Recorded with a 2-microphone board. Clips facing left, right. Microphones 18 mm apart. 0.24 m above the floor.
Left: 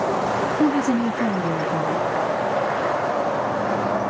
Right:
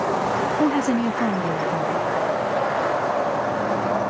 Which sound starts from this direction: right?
A woman speaking, at 0.6 s.